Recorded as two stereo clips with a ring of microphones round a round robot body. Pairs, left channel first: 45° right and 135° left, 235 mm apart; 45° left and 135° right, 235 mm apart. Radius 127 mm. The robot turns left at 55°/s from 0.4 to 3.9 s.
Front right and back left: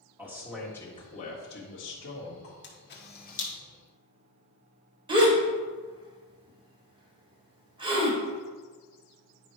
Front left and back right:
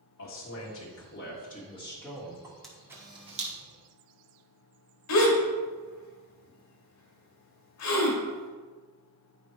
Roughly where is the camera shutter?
Ahead right.